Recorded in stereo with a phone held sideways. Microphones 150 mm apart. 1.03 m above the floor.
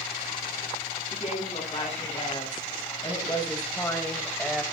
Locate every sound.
1.1 s a woman speaking: 50° left (ahead or behind), 7.5 m; by 4.6 s centre (ahead or behind), 4 m